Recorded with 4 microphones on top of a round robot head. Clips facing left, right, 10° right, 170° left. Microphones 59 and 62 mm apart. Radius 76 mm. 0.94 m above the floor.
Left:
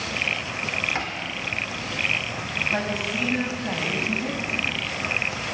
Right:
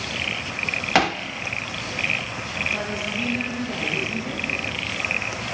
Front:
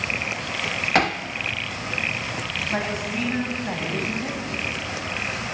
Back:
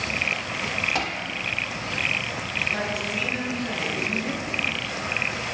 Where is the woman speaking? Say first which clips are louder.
Left 1 dB, front 1 dB; 40° left, 8 m.